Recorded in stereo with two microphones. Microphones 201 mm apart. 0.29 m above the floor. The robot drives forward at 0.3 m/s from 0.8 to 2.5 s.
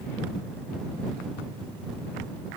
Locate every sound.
Only background noise.